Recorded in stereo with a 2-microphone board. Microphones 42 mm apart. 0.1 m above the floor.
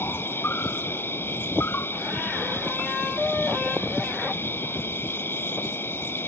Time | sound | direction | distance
0.0 | an insect | 55° left (ahead or behind) | ?